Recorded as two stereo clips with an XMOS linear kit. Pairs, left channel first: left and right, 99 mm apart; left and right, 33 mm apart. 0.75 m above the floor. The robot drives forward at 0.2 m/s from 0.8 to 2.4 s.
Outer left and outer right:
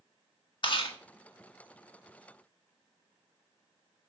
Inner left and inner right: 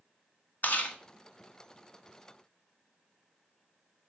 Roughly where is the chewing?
Left.